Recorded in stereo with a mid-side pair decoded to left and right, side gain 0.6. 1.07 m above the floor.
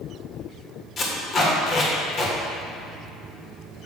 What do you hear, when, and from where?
1.0 s tape being pulled: 45° left, 1.6 m